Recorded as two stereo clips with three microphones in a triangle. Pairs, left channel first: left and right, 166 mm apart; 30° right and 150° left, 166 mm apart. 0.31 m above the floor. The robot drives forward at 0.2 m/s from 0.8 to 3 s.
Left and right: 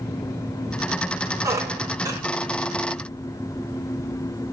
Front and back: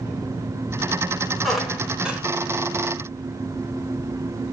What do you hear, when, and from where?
1.4 s a squeak: 120° right, 0.8 m; by 2.2 s 140° right, 0.9 m